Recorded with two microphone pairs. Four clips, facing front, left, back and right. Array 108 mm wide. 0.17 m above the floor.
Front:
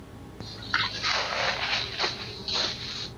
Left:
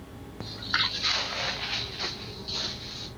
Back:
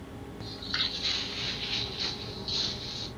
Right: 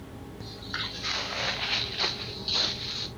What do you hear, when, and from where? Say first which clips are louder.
0.4 s footsteps: left 7 dB, front 10 dB; 70° left, 0.6 m; by 3.1 s 35° right, 2 m